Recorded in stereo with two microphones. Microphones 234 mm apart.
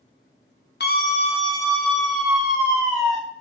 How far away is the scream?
About 0.9 m.